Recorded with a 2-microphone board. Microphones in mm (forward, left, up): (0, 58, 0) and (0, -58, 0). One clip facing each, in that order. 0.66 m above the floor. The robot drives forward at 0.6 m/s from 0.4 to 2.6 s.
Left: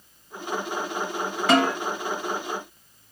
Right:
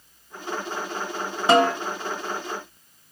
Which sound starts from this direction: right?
A snare drum, at 1.5 s.